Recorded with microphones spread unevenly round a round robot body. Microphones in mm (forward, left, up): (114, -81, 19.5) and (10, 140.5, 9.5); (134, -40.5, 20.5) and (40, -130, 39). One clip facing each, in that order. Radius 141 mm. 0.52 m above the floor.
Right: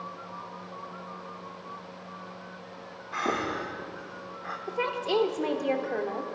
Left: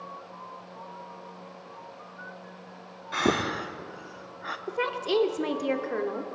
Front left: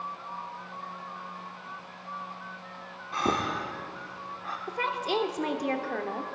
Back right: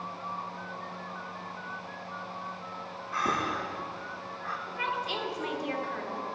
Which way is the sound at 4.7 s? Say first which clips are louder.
Left 1 dB, front left 5 dB; 55° left.